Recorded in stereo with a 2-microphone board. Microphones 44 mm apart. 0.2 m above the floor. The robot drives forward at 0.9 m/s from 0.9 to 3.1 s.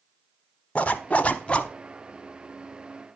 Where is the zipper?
30° left (ahead or behind), 0.7 m; by 1.7 s 25° left (ahead or behind), 0.9 m.